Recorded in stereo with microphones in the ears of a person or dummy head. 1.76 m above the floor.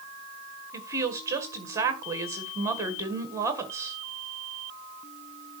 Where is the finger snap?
I don't hear a finger snap.